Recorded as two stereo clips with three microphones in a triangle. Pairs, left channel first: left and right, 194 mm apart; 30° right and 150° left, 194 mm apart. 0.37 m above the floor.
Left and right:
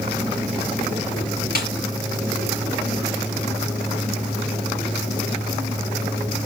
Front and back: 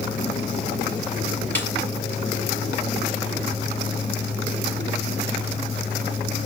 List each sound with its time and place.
1.6 s a snare drum: 50° left, 5.5 m